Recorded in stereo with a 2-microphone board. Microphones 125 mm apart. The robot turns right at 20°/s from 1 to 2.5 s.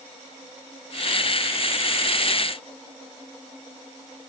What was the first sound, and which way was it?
Only background noise.